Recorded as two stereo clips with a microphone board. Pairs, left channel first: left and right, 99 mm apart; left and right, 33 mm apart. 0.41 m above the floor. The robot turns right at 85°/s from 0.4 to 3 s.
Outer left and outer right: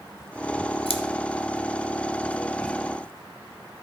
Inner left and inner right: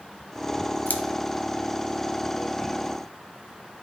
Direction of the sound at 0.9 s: 80° left.